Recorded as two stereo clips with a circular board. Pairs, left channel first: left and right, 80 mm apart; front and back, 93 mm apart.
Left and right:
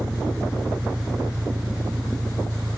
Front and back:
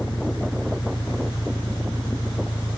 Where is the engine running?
55° right.